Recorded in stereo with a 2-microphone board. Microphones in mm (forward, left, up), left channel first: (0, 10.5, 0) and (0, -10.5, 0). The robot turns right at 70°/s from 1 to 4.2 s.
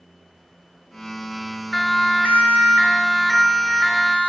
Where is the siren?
65° left (ahead or behind), 5 m; by 4.3 s 45° right (ahead or behind), 4.5 m.